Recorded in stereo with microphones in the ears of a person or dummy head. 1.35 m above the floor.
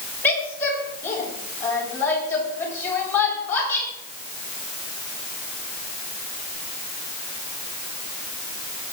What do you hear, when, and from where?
0.2 s a woman speaking: 15° left (ahead or behind), 7.5 m